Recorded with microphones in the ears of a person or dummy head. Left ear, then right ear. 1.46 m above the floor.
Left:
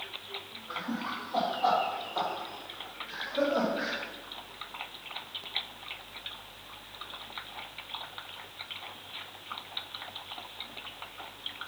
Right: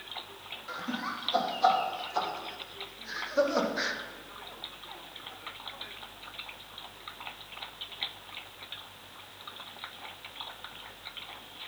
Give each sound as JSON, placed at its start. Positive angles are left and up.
{"t": 0.7, "sound": "laughter", "side_deg": -75, "distance_m": 3.0}